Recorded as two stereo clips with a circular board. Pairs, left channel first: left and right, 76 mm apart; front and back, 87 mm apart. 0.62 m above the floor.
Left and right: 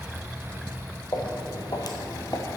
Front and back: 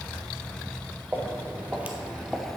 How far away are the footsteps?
About 1.6 m.